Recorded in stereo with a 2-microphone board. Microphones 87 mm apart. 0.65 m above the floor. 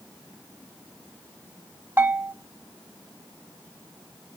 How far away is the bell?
About 0.8 m.